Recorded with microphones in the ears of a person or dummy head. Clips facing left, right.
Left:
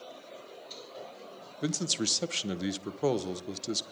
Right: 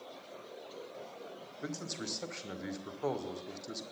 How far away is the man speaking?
About 0.8 m.